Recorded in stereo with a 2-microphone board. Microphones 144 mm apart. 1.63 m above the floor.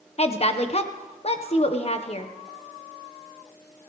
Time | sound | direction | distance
0.2 | a woman speaking | 45° left (ahead or behind) | 1.3 m